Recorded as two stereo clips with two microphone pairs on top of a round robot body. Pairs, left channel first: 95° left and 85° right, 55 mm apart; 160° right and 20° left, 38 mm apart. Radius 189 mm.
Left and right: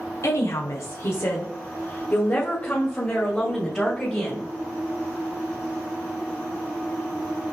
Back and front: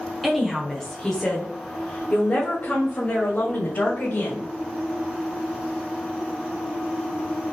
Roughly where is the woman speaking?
Left.